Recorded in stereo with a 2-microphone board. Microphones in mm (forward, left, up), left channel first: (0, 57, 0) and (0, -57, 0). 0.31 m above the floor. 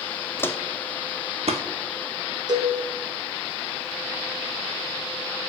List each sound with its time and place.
0.4 s footsteps: 25° left (ahead or behind), 0.7 m; by 1.6 s 70° right (ahead or behind), 1.0 m
2.5 s a cowbell: 40° right (ahead or behind), 1.1 m